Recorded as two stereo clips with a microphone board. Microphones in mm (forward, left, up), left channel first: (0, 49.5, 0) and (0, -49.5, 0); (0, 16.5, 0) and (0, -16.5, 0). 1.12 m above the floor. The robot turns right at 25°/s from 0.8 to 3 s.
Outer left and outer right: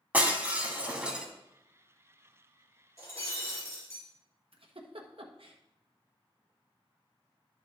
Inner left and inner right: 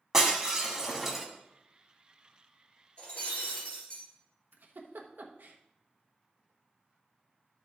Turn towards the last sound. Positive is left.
turn(degrees=-65)  # may be behind; listen again after turning